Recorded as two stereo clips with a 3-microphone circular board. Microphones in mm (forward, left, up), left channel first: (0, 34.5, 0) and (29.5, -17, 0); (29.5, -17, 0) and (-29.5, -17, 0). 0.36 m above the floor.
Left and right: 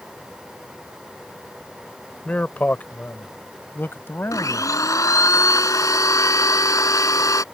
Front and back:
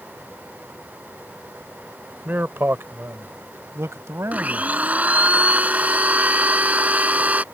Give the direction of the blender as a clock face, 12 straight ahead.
8 o'clock.